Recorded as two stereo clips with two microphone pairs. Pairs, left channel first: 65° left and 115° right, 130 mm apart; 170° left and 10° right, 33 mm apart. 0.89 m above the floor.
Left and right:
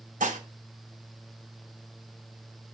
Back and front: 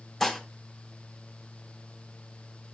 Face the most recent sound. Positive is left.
turn(degrees=-105)